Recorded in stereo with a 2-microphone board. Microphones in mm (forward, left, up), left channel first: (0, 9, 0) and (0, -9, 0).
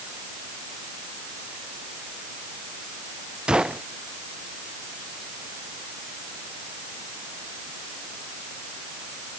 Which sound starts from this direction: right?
A gunshot, at 3.5 s.